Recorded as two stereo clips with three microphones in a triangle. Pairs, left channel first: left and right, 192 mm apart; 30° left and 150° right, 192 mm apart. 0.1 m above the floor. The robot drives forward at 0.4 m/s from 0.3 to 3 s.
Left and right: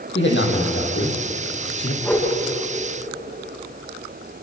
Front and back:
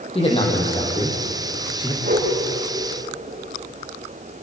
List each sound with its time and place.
0.1 s a man speaking: 90° left, 4.5 m; by 1.9 s 95° left, 4.5 m
2.0 s a whoosh: 170° left, 7 m